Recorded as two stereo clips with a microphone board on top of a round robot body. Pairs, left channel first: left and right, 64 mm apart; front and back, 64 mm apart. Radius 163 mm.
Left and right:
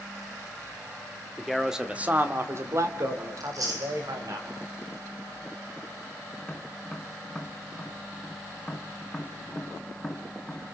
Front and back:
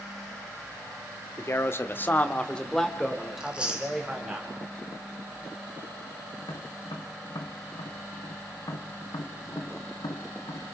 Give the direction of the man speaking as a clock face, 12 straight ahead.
12 o'clock.